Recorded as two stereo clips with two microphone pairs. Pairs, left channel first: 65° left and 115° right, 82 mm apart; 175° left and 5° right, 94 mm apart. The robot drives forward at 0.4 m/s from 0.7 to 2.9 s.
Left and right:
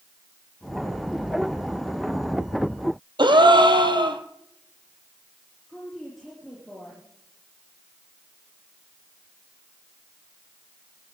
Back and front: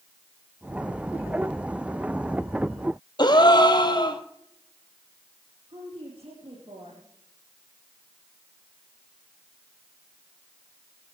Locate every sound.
3.2 s a gasp: 140° right, 1.5 m
5.7 s a woman speaking: 25° right, 5 m